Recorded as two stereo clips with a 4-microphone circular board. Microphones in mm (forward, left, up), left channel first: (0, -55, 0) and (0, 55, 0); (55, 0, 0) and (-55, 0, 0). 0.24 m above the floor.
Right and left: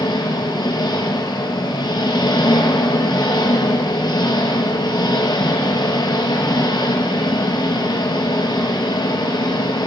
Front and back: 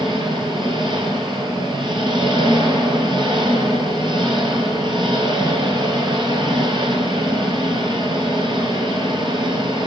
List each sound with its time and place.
0.0 s an engine running: 135° right, 3.5 m